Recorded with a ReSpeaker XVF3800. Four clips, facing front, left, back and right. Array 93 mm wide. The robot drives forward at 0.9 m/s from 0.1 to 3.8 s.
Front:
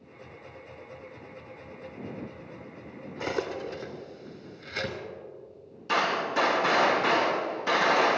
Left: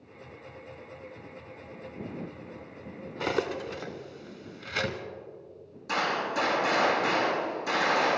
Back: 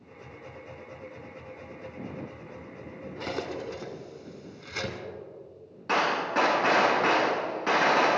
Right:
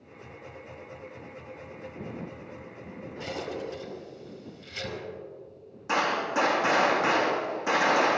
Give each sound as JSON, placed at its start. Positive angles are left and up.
{"t": 3.2, "sound": "cutlery clinking", "azimuth_deg": 80, "distance_m": 1.8}
{"t": 5.9, "sound": "a gunshot", "azimuth_deg": -155, "distance_m": 4.5}